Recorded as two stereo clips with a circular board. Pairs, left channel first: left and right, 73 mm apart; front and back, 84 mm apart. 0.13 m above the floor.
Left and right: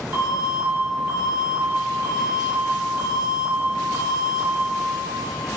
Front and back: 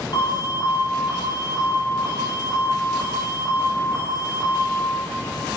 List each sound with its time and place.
0.1 s an alarm: 25° right, 3 m